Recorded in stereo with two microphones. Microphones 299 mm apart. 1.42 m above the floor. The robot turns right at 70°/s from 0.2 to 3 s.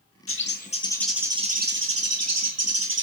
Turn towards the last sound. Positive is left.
turn(degrees=-45)